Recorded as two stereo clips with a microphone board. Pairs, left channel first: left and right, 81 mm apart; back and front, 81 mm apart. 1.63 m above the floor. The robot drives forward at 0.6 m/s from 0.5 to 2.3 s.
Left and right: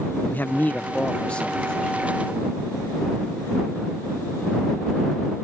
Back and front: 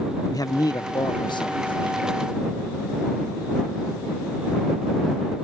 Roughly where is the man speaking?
Behind left.